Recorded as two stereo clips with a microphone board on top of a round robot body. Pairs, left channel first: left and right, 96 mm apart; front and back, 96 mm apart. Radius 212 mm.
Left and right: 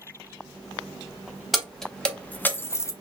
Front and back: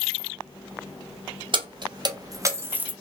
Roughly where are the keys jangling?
Behind.